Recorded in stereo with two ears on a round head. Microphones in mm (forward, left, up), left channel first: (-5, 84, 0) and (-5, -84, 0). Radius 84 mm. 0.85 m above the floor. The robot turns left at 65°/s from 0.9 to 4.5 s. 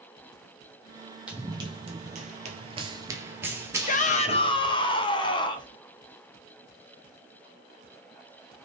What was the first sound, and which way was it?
Running footsteps, 5° right (ahead or behind).